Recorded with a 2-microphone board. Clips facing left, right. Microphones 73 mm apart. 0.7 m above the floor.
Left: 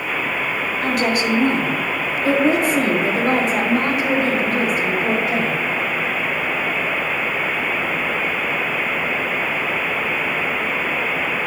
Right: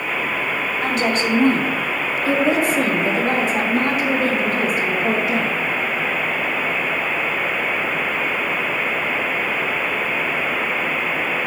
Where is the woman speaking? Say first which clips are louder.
Left 1 dB; 5° left (ahead or behind), 3 m; by 5.6 s 65° left (ahead or behind), 5.5 m.